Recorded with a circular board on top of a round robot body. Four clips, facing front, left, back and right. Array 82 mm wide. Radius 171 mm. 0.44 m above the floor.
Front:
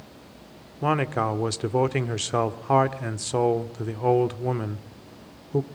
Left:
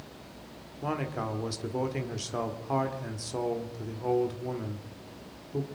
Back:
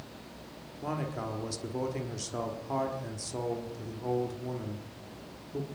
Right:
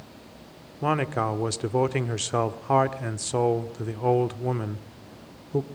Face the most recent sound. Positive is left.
turn(degrees=-35)